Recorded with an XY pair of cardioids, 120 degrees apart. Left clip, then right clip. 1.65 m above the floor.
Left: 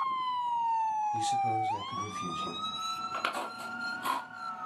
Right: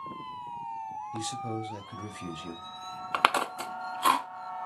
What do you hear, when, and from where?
1.1 s a man speaking: 15° right, 1.0 m
3.1 s chewing: 60° right, 0.8 m